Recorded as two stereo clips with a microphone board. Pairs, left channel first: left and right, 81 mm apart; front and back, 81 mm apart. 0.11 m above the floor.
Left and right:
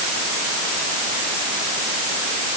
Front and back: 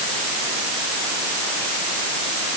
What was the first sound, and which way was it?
Only background noise.